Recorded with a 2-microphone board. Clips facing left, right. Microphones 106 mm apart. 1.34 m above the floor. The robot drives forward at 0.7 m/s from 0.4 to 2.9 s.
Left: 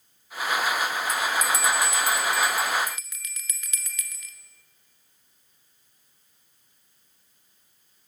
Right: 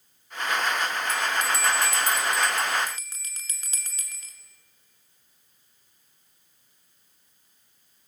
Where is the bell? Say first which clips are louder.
Left 1 dB; 65° right (ahead or behind), 1.3 m; by 4.3 s 35° right (ahead or behind), 2 m.